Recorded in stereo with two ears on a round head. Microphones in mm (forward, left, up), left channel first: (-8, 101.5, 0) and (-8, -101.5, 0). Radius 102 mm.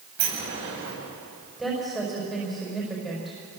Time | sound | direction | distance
0.2 | a sliding door | 55° right (ahead or behind) | 10 m
1.6 | a woman speaking | centre (ahead or behind) | 5.5 m